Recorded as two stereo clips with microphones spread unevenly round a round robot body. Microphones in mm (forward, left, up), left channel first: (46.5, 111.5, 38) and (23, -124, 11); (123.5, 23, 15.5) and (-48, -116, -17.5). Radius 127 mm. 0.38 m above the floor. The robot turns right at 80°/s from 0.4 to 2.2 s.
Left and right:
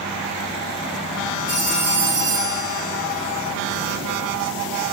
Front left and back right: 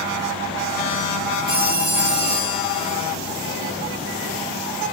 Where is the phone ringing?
145° left, 4.5 m; by 2.9 s 155° right, 4.5 m.